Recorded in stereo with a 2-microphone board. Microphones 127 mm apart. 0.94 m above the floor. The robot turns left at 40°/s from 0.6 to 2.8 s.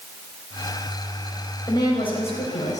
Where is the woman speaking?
150° left, 4 m; by 2.8 s 105° left, 4 m.